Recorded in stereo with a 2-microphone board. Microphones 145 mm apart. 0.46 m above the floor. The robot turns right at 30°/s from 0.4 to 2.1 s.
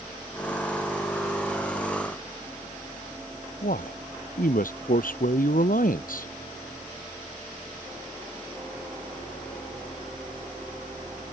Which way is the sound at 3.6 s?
70° left (ahead or behind).